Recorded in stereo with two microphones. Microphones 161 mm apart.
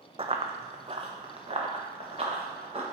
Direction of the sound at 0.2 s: 35° right (ahead or behind).